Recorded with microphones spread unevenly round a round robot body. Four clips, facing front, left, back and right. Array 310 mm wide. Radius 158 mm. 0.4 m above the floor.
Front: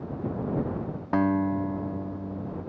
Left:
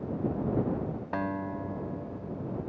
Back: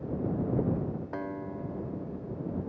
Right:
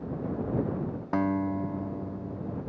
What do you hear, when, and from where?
1.1 s a guitar: 20° right